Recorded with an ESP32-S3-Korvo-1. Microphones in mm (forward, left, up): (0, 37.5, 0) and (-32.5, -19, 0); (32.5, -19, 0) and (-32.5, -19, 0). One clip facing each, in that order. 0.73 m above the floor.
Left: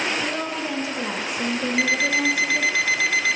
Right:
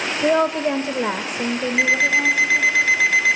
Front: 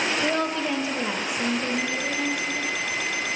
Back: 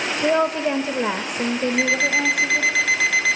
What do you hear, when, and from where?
0.2 s a woman speaking: 110° right, 1.0 m; by 2.8 s 140° left, 1.3 m
1.8 s an alarm clock: 170° left, 1.1 m